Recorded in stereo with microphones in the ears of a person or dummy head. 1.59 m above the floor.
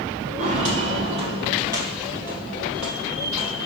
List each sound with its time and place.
0.4 s footsteps: 40° right (ahead or behind), 2.5 m; by 3.7 s centre (ahead or behind), 3 m